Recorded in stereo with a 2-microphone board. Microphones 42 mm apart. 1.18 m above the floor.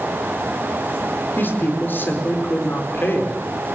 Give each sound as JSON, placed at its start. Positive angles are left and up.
{"t": 1.4, "sound": "a woman speaking", "side_deg": 55, "distance_m": 4.0}